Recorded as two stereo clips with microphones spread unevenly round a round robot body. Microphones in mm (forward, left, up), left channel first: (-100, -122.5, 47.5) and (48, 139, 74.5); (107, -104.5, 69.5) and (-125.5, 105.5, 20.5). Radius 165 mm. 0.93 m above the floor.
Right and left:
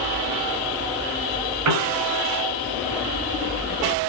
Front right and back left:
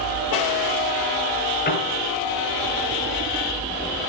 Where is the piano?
20° left, 9 m.